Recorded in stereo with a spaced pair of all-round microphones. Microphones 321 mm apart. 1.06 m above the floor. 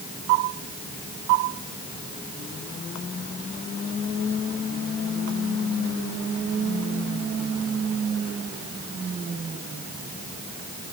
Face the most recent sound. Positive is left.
No sound to turn to.